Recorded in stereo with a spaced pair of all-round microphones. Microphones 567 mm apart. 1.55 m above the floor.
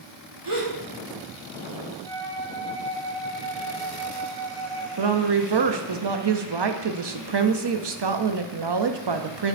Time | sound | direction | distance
0.5 | a gasp | 60° right (ahead or behind) | 1.8 m
2.0 | a flute | 5° left (ahead or behind) | 1.0 m
5.0 | a woman speaking | 50° right (ahead or behind) | 0.6 m